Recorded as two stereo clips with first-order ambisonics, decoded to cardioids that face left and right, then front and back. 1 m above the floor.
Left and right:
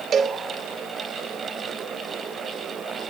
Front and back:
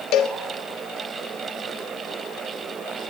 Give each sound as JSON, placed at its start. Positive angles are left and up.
{"t": 0.1, "sound": "a cowbell", "azimuth_deg": -25, "distance_m": 0.7}